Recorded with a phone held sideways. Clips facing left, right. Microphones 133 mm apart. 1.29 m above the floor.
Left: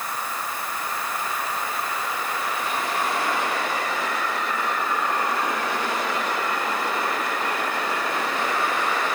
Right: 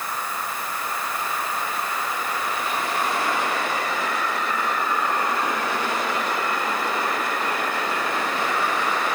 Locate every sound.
Only background noise.